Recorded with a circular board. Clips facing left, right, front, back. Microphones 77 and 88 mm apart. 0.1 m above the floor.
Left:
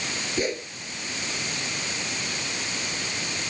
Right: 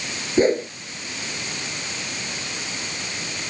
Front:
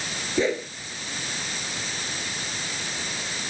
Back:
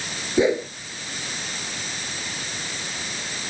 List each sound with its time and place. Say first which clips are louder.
0.4 s a whoosh: right 11 dB, back 5 dB; 115° right